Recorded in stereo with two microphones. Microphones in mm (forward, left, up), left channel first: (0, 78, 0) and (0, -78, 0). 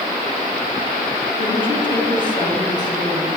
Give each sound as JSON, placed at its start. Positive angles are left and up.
{"t": 1.4, "sound": "a woman speaking", "side_deg": 30, "distance_m": 3.5}